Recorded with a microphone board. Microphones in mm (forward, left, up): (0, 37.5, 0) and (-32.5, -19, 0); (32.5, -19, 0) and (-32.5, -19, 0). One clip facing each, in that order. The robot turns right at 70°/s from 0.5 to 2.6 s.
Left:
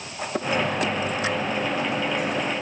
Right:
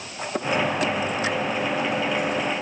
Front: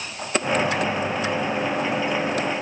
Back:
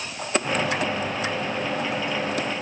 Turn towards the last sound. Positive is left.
No sound to turn to.